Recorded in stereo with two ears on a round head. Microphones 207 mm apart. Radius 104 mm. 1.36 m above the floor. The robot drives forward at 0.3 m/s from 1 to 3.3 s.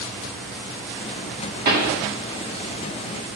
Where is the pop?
45° right (ahead or behind), 1.9 m.